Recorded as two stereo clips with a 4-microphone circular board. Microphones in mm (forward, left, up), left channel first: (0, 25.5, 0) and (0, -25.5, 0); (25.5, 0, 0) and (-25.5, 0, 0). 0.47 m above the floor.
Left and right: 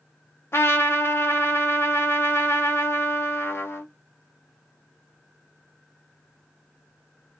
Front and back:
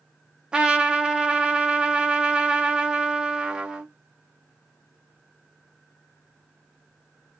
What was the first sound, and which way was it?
A trumpet, 110° left.